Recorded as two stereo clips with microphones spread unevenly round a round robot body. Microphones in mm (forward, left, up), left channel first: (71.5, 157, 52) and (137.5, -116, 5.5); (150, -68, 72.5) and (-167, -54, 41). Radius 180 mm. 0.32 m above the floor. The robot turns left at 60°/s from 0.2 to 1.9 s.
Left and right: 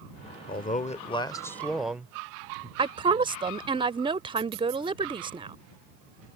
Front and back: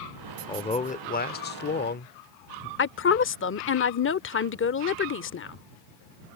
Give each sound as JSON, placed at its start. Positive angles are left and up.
{"t": 0.5, "sound": "a man speaking", "azimuth_deg": 70}
{"t": 2.8, "sound": "a woman speaking", "azimuth_deg": -30}